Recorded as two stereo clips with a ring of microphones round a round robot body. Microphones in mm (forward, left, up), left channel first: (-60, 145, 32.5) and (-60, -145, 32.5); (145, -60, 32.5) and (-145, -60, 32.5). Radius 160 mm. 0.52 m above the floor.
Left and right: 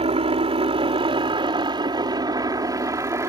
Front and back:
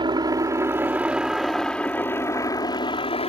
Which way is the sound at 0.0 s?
130° right.